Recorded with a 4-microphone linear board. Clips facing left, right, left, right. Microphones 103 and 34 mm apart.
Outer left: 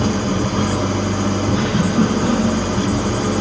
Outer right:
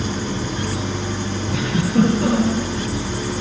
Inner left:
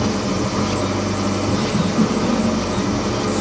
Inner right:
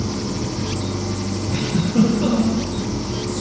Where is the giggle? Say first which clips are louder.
Outer right 2 dB, inner right 3 dB; 65° right (ahead or behind), 8.5 m.